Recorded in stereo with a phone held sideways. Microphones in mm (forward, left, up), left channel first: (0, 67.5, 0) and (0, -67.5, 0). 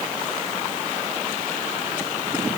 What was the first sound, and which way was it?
Only background noise.